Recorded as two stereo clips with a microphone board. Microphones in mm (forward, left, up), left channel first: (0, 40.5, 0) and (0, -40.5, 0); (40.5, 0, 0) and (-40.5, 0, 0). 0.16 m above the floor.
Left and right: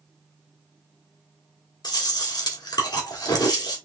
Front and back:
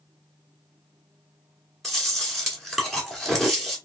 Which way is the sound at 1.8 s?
85° left.